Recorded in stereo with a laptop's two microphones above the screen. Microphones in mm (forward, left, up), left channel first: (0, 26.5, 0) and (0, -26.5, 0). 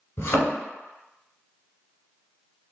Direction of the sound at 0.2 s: 45° left (ahead or behind).